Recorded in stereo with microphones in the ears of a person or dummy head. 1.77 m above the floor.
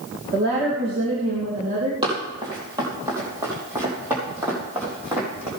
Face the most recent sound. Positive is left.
turn(degrees=-10)  # may be behind; listen again after turning